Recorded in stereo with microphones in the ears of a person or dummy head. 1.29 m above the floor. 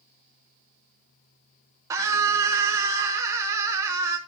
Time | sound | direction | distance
1.9 | a scream | 10° right (ahead or behind) | 0.7 m